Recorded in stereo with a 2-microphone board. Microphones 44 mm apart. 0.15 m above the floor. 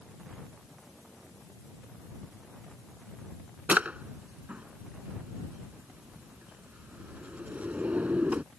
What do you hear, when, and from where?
3.7 s a drawer: 35° right (ahead or behind)